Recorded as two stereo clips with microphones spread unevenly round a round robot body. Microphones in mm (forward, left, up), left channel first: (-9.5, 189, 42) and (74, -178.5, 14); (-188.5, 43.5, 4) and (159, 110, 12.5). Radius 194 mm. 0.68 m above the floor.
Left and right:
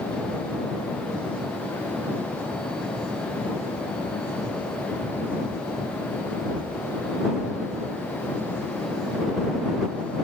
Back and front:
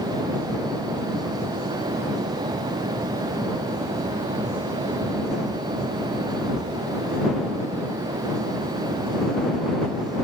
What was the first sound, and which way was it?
Only background noise.